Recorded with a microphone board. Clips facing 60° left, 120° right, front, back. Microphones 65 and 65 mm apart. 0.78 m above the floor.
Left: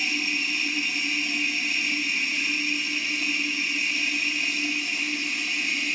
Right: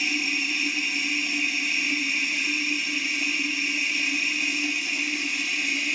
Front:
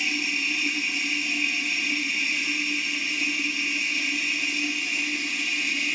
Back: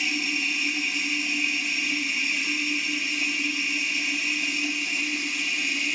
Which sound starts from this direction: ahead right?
Running water, at 0.0 s.